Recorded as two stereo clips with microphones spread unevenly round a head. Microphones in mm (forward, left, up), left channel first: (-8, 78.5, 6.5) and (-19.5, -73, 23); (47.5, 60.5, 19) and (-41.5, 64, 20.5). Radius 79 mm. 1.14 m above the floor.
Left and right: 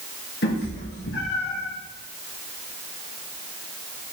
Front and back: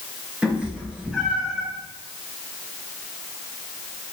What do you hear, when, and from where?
0.4 s a cat meowing: 100° left, 4.5 m